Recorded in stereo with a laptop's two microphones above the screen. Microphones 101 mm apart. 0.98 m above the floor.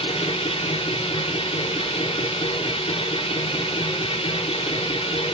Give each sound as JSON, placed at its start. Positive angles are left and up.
{"t": 0.0, "sound": "a machine running", "side_deg": 75, "distance_m": 1.3}